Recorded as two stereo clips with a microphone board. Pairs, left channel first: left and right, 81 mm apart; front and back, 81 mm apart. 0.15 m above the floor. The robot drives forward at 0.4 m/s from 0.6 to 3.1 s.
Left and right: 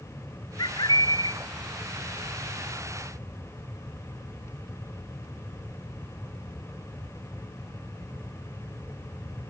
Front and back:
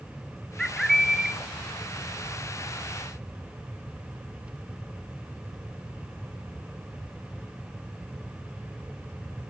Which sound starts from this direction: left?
A bird, at 0.6 s.